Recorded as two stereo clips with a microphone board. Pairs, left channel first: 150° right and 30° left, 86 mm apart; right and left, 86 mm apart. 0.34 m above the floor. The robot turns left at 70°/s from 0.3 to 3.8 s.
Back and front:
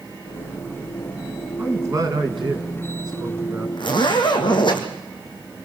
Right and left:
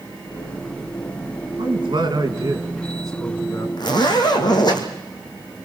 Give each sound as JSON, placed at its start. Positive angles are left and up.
{"t": 1.6, "sound": "a man speaking", "azimuth_deg": 100, "distance_m": 3.5}
{"t": 3.8, "sound": "a zipper", "azimuth_deg": -125, "distance_m": 3.0}